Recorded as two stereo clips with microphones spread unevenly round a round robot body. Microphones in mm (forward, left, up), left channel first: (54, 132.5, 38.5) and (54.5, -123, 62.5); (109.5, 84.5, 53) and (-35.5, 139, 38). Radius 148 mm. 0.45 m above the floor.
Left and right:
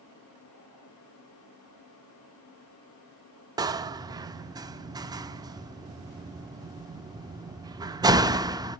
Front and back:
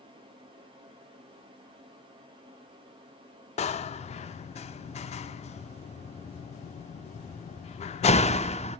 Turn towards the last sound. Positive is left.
turn(degrees=-15)